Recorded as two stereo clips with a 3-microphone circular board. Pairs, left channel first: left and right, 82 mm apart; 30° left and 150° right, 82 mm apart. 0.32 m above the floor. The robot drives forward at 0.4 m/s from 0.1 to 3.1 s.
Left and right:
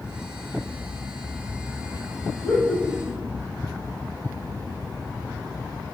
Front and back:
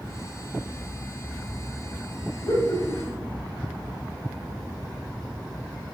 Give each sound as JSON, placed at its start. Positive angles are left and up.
{"t": 2.4, "sound": "laughter", "azimuth_deg": 10, "distance_m": 1.4}